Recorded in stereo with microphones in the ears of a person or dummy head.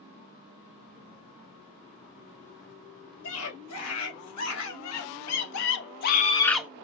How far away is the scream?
About 3 m.